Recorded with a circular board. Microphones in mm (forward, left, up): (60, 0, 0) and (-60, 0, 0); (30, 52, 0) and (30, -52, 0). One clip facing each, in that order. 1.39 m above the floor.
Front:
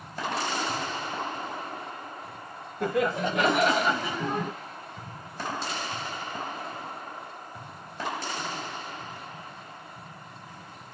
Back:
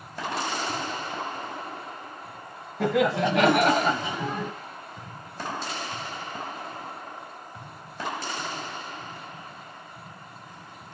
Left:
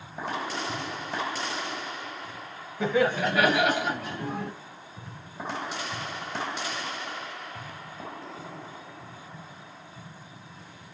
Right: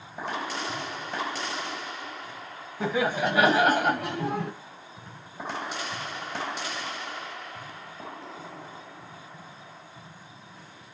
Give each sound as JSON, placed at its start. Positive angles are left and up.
{"t": 2.8, "sound": "laughter", "azimuth_deg": -175, "distance_m": 1.1}